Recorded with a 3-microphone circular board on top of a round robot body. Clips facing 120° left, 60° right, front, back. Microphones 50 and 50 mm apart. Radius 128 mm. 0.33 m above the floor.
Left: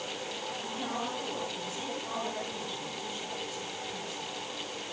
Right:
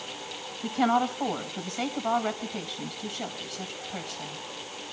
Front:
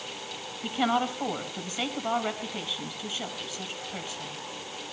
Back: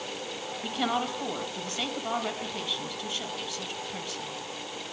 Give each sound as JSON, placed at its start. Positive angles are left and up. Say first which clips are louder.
{"t": 0.6, "sound": "a woman speaking", "louder": "right 13 dB, front 3 dB", "azimuth_deg": -80, "distance_m": 4.0}